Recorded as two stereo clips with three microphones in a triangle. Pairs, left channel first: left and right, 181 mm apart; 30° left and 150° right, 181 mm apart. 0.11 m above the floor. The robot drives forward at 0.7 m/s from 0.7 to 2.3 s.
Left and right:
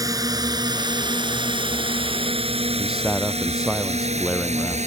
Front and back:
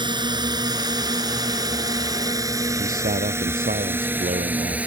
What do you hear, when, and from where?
0.0 s a drone: 130° right; by 4.9 s 70° right
2.8 s a man speaking: 175° right